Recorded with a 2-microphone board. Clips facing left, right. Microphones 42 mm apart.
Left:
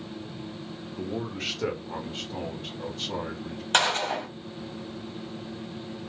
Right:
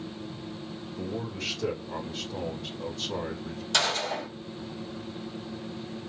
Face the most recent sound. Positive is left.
turn(degrees=40)  # may be behind; listen again after turning